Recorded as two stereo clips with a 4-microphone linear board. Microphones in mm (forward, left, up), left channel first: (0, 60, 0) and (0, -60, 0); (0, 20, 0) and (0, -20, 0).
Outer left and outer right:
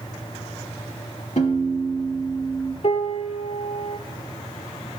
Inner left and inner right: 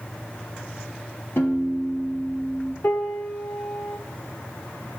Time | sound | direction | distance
1.4 | a piano | 70° left (ahead or behind) | 2.5 m
2.8 | a piano | 60° left (ahead or behind) | 2.5 m